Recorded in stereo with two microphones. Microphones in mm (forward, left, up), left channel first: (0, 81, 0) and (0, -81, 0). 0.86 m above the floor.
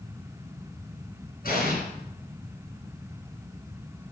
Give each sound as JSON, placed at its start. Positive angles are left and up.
{"t": 1.4, "sound": "an explosion", "side_deg": 65, "distance_m": 3.0}